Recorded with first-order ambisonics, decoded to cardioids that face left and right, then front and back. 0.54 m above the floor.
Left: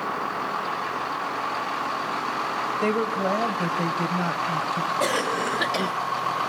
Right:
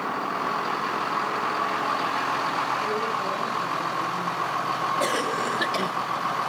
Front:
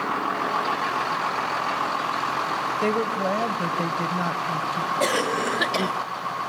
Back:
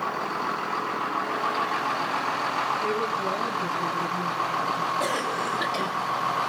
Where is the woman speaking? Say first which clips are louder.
Left 2 dB, front 2 dB; 45° left, 2.5 m.